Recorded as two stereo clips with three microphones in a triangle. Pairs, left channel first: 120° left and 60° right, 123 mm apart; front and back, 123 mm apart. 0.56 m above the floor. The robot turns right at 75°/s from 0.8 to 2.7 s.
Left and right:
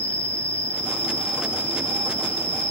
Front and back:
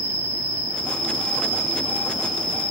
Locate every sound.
0.0 s an insect: 165° right, 1.1 m; by 2.7 s 25° right, 1.1 m